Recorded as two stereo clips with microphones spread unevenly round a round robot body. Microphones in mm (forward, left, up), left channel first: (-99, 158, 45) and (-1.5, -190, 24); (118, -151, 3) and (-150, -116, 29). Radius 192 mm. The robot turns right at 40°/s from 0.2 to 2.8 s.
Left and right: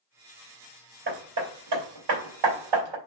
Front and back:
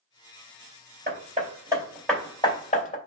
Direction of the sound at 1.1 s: 135° right.